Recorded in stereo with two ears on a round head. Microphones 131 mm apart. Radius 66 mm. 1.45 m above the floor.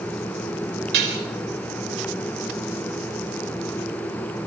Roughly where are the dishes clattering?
Right.